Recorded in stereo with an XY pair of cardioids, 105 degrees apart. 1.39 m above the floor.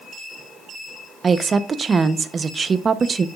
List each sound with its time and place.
1.2 s a woman speaking: 40° right, 0.8 m